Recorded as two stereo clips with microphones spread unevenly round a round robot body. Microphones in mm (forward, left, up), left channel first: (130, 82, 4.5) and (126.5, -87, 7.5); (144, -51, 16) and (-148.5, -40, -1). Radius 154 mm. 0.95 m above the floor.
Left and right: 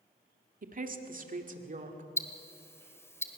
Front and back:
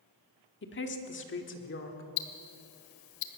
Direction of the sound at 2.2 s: 15° left.